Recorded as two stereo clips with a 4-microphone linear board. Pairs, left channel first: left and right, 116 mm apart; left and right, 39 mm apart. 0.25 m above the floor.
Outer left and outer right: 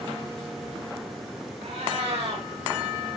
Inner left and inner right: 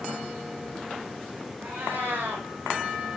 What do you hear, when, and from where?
1.6 s a cat meowing: 75° right (ahead or behind), 6 m